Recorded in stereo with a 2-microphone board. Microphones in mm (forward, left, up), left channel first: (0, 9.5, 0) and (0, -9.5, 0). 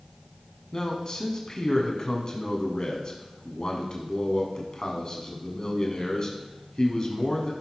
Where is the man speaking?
40° left (ahead or behind), 1.6 m.